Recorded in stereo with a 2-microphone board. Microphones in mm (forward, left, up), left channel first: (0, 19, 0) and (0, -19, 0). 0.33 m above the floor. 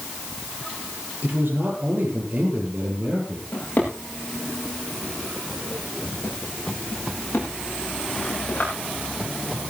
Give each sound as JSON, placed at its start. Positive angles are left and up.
{"t": 1.2, "sound": "a man speaking", "side_deg": -50, "distance_m": 8.0}
{"t": 3.5, "sound": "a drawer", "side_deg": 45, "distance_m": 9.5}